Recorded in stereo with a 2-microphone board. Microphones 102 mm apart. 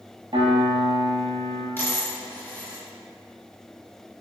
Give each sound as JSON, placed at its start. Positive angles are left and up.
{"t": 0.3, "sound": "a piano", "side_deg": -50, "distance_m": 1.3}
{"t": 1.8, "sound": "a dropped coin", "side_deg": 20, "distance_m": 1.8}